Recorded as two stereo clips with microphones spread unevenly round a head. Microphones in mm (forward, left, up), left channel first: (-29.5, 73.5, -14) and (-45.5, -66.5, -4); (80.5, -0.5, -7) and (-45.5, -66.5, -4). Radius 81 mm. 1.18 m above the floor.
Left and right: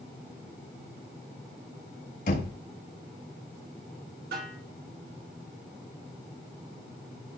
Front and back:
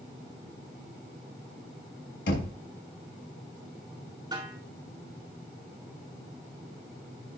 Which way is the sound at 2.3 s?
45° left.